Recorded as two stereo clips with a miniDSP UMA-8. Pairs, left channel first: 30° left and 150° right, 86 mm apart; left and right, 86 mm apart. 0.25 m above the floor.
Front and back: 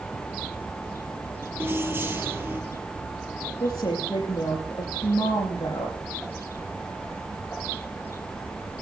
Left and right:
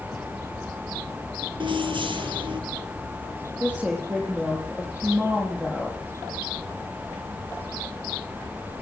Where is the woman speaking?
15° right, 8.5 m.